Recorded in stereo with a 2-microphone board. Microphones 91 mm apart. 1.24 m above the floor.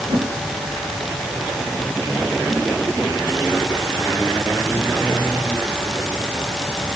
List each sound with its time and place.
0.1 s a whoosh: 65° right (ahead or behind), 2.5 m